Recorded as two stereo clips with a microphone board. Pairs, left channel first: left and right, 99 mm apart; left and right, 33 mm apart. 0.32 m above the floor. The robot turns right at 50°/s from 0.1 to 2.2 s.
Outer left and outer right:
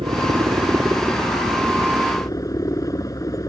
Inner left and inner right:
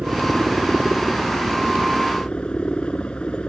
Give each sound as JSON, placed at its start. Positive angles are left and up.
{"t": 0.0, "sound": "a helicopter", "azimuth_deg": -70}